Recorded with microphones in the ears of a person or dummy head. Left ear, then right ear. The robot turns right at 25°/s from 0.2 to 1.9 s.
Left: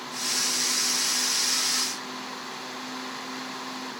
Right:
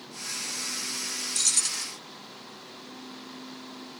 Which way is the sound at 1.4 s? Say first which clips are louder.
Left 2 dB; 80° right.